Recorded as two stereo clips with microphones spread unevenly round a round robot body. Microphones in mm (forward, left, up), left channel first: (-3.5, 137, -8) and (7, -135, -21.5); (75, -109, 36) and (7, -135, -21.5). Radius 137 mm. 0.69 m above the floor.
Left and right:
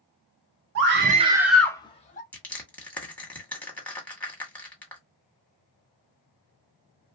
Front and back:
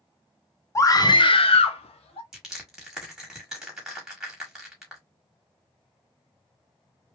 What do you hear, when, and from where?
0.8 s a scream: 60° right, 0.9 m; by 2.2 s 30° left, 1.2 m
2.3 s crushing: straight behind, 1.3 m